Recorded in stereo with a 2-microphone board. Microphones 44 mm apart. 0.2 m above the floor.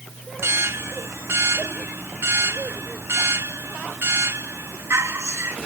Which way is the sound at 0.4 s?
65° right (ahead or behind).